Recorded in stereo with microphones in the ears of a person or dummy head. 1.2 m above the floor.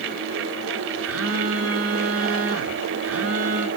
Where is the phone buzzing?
70° right (ahead or behind), 1.5 m.